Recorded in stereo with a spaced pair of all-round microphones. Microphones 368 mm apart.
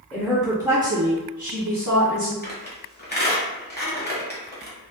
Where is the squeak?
25° left (ahead or behind), 0.9 m.